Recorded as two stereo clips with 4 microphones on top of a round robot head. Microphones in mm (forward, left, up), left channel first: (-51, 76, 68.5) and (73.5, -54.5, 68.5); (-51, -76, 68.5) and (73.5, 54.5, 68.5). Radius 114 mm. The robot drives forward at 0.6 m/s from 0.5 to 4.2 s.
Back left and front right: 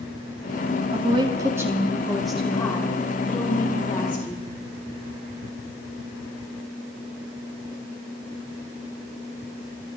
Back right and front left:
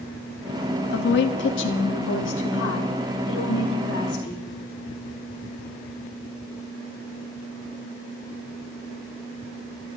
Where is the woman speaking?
105° right, 1.2 m; by 4.5 s 155° right, 2.5 m.